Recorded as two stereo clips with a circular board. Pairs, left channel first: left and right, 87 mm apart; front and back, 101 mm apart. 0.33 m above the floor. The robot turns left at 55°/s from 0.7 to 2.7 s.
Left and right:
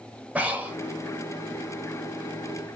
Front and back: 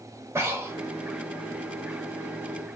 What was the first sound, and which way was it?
Breathing, 145° right.